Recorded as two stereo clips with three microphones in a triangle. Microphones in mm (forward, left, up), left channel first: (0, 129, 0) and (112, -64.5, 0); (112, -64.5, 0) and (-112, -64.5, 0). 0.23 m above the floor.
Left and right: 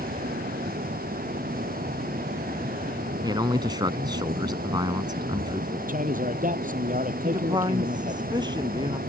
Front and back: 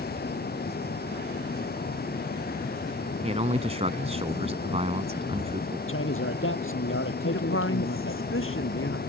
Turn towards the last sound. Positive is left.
turn(degrees=10)